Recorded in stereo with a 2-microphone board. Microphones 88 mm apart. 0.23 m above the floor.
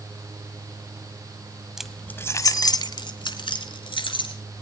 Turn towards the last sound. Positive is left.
turn(degrees=75)  # may be behind; listen again after turning